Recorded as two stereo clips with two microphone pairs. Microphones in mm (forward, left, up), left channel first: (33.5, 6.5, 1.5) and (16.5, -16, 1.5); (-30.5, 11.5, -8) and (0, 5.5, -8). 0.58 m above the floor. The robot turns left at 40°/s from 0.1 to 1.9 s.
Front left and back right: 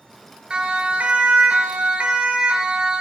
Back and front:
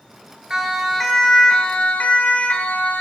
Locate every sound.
0.5 s a siren: 75° right, 3 m; by 3.0 s 175° left, 3 m